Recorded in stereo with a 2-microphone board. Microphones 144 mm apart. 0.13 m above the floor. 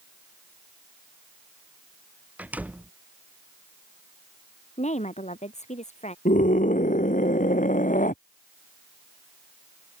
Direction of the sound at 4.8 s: 50° left (ahead or behind).